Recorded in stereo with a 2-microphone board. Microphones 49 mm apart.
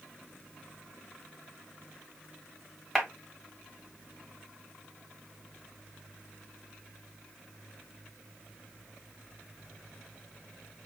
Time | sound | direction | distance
3.0 | a clap | centre (ahead or behind) | 1.4 m